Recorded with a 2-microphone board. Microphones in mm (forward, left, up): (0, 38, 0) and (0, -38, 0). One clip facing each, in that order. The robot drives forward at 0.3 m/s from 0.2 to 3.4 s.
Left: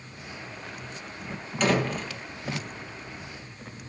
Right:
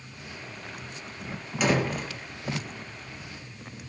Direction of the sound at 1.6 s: 10° right (ahead or behind).